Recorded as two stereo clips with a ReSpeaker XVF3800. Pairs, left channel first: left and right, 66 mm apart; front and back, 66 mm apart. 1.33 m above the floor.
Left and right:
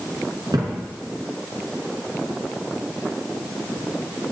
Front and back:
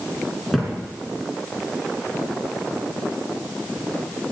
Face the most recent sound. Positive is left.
turn(degrees=-85)